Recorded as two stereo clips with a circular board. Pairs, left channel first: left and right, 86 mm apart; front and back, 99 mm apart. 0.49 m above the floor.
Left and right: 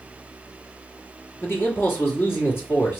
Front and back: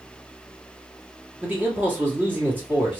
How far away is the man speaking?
About 1.5 m.